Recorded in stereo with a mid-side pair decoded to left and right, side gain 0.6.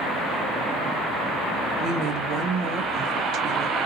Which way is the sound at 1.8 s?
55° right.